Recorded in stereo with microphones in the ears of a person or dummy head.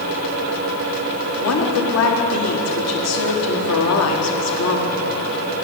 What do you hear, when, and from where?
1.4 s a woman speaking: 80° left, 1.3 m